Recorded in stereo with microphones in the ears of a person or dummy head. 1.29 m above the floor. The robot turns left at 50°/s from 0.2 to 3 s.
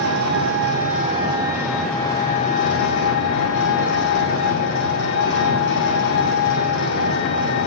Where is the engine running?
100° right, 2.5 m; by 7.7 s 120° left, 2.5 m.